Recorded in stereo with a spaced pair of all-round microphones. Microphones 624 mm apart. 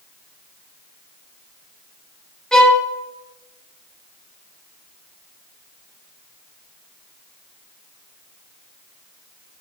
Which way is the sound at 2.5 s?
Centre (ahead or behind).